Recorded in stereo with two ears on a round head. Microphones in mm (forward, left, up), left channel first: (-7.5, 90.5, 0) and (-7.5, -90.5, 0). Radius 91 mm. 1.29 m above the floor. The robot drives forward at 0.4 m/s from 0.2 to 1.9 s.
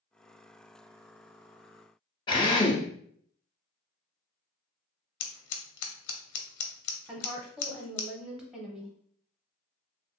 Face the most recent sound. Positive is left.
turn(degrees=-5)  # may be behind; listen again after turning